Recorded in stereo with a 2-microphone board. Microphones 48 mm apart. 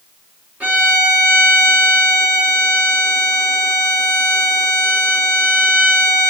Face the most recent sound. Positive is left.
turn(degrees=-30)  # may be behind; listen again after turning